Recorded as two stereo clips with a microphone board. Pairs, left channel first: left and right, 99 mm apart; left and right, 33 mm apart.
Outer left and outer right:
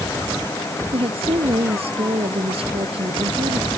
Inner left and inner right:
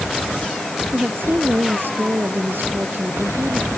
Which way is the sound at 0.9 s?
75° right (ahead or behind).